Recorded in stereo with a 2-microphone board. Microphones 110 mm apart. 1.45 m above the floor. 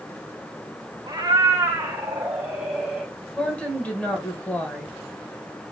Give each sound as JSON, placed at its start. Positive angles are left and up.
{"t": 1.1, "sound": "a cat meowing", "side_deg": -35, "distance_m": 1.2}
{"t": 3.4, "sound": "a woman speaking", "side_deg": 10, "distance_m": 1.6}